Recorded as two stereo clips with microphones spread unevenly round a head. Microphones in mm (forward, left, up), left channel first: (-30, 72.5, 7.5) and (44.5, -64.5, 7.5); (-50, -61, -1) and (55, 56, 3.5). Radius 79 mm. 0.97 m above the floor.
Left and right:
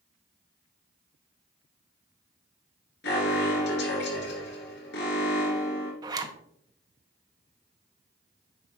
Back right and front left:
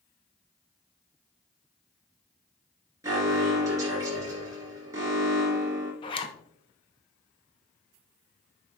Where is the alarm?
120° left, 3 m.